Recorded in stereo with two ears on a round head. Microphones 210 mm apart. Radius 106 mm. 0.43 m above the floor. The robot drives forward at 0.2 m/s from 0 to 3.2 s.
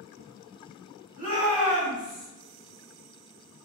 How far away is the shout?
About 1.4 m.